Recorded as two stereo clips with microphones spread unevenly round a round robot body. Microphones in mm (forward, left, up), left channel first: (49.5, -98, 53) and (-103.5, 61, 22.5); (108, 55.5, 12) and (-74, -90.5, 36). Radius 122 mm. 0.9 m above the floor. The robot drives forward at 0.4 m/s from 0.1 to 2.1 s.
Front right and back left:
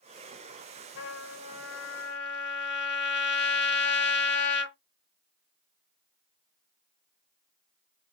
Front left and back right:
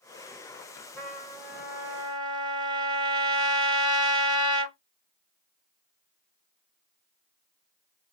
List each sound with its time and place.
1.0 s a trumpet: 40° right, 1.0 m; by 4.8 s 70° right, 0.8 m